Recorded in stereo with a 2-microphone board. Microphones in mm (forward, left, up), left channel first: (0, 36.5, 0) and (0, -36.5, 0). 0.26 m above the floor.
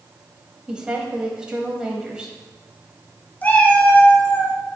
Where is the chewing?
I don't hear chewing.